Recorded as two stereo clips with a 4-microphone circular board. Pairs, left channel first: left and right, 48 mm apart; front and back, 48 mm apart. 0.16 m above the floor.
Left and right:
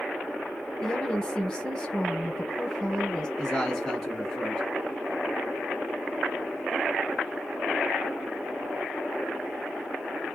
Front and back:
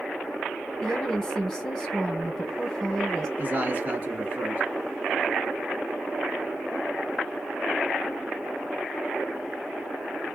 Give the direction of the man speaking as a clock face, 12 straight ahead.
7 o'clock.